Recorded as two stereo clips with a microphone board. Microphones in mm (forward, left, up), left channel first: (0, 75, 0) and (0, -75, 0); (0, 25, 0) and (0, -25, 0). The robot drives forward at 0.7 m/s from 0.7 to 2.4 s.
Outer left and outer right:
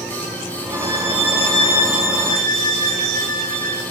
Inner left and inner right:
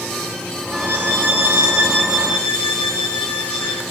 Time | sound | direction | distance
0.7 | a violin | 40° right (ahead or behind) | 2 m